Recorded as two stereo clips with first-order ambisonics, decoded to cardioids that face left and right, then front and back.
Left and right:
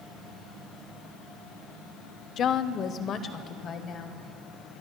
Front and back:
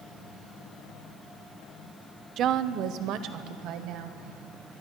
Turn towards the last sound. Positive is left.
turn(degrees=150)